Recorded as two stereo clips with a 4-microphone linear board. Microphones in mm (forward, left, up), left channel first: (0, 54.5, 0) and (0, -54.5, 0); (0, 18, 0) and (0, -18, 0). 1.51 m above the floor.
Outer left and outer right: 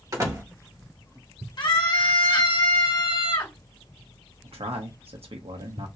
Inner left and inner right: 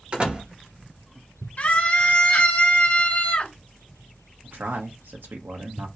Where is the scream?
45° left (ahead or behind), 1.8 m.